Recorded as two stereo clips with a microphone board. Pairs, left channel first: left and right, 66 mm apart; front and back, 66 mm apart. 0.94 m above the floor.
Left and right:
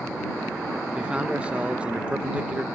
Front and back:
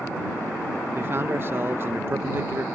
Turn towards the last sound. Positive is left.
turn(degrees=-150)